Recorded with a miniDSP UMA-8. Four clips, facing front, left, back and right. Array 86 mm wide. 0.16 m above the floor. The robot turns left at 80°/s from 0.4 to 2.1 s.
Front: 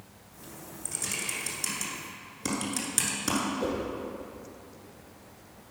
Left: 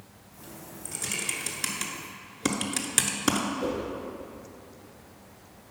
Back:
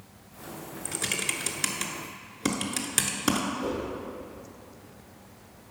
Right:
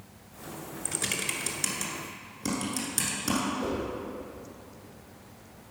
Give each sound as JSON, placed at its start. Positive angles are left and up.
{"t": 0.8, "sound": "typing on a keyboard", "azimuth_deg": -135, "distance_m": 0.9}
{"t": 3.6, "sound": "a whoosh", "azimuth_deg": 0, "distance_m": 2.5}